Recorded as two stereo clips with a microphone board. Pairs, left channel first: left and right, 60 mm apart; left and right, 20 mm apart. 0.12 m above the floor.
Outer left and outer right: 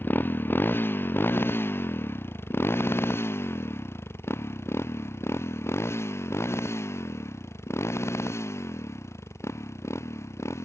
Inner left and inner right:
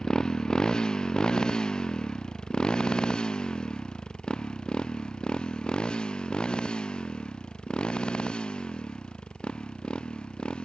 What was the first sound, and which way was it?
A motorcycle, 35° left (ahead or behind).